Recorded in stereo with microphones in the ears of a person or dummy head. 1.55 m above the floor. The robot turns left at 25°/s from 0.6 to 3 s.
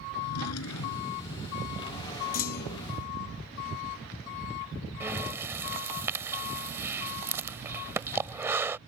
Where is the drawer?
80° left; by 1.3 s 75° left (ahead or behind).